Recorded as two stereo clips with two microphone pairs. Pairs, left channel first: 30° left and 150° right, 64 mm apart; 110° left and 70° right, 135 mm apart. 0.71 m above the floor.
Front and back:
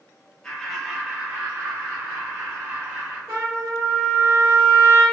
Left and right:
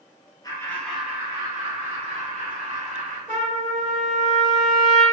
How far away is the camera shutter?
No camera shutter in this recording.